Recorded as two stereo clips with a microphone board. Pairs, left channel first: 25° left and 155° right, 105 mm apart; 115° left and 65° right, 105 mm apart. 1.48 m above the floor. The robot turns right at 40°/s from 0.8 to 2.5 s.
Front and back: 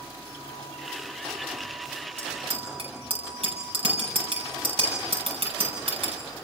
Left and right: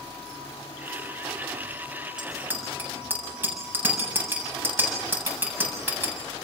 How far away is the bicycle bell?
About 7 m.